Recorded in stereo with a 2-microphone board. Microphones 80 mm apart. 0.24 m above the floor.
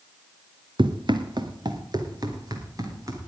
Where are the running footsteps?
80° right, 1.4 m; by 3.3 s 45° right (ahead or behind), 4 m.